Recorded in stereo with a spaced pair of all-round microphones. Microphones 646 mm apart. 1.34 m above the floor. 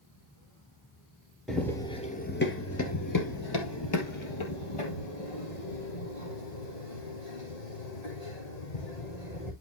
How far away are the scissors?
I don't hear scissors.